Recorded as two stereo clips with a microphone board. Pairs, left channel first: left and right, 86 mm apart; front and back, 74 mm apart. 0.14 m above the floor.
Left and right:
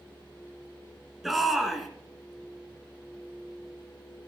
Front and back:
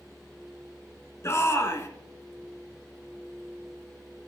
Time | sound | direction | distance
1.2 | a shout | straight ahead | 1.9 m